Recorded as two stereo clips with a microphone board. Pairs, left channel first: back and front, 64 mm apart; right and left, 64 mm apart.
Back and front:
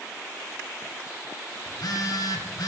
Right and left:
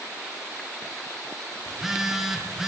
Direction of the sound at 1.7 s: 175° left.